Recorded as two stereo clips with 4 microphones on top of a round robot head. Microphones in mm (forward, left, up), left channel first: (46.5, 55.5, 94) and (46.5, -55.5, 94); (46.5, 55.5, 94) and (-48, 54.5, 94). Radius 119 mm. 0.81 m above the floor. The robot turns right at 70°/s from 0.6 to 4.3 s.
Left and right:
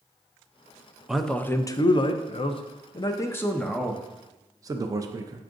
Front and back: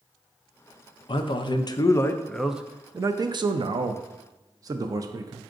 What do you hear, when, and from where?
1.1 s a man speaking: 5° right, 0.5 m; by 5.4 s 140° right, 0.5 m